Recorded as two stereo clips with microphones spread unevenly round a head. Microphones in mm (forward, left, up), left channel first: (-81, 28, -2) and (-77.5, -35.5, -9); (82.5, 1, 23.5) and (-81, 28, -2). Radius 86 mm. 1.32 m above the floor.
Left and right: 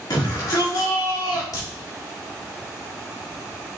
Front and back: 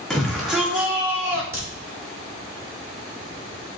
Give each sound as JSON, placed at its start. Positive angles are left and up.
{"t": 0.1, "sound": "a shout", "azimuth_deg": 80, "distance_m": 2.5}
{"t": 1.5, "sound": "a crack", "azimuth_deg": 95, "distance_m": 3.0}